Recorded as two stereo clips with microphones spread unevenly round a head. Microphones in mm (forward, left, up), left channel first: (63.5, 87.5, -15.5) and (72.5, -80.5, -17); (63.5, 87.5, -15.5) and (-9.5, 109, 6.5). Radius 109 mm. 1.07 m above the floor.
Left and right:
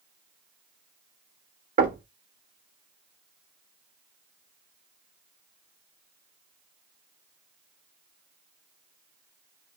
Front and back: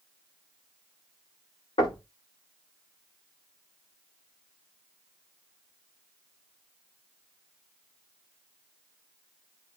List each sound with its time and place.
1.8 s knocking: 45° right, 1.6 m